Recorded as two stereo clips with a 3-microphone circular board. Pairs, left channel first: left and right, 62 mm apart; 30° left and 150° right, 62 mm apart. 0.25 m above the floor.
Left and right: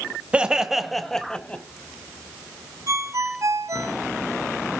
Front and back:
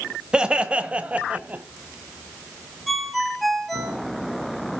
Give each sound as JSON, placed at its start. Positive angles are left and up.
{"t": 0.3, "sound": "laughter", "azimuth_deg": -105, "distance_m": 1.0}
{"t": 2.9, "sound": "a ringtone", "azimuth_deg": -60, "distance_m": 3.0}